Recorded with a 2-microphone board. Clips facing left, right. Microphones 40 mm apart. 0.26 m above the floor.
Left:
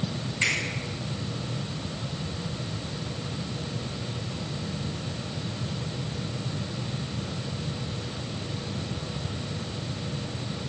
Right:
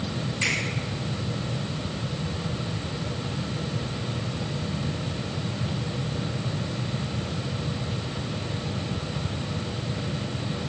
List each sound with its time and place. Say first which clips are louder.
0.4 s a finger snap: left 1 dB; 20° left (ahead or behind), 1.3 m